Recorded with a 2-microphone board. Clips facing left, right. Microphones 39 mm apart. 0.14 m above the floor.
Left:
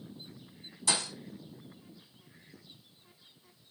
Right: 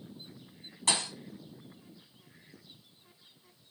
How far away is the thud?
About 2.0 m.